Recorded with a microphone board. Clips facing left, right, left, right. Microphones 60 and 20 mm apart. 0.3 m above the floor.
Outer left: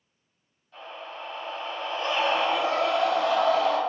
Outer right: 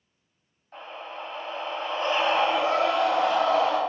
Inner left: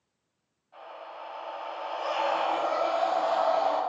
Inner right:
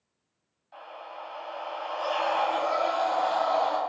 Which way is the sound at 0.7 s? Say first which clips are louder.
Outer right 1 dB, inner right 1 dB; 50° right (ahead or behind).